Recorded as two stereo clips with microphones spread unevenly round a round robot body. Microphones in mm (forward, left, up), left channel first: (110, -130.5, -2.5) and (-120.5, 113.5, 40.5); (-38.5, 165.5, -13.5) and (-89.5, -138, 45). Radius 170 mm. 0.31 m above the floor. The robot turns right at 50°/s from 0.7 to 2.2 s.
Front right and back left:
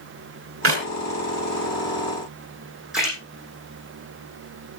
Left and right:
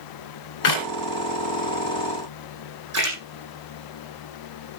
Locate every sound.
0.6 s a clap: 80° left, 3 m; by 0.9 s 85° left, 3 m
2.9 s a splash: 140° right, 7.5 m